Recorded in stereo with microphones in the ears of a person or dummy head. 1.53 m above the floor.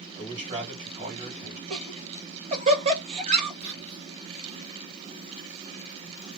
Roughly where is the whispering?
Right.